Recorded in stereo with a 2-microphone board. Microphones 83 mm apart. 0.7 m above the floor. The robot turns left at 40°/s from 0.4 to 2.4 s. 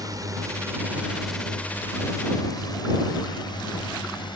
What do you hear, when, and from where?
0.0 s a drone: 45° right (ahead or behind); by 4.4 s 65° left (ahead or behind)